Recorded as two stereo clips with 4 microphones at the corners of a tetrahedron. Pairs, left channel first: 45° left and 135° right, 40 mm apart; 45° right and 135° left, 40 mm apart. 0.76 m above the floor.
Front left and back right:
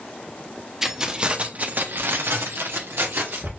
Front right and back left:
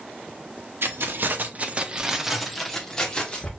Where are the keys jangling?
150° left, 1.0 m; by 3.5 s 110° right, 1.5 m.